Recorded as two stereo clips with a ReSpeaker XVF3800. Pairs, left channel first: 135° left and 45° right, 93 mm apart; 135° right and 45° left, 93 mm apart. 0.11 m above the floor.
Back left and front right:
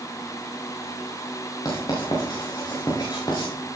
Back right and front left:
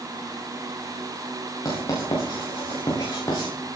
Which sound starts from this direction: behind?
Writing, at 1.6 s.